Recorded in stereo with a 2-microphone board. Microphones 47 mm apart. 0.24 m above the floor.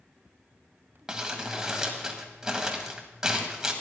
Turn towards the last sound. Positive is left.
turn(degrees=-10)  # may be behind; listen again after turning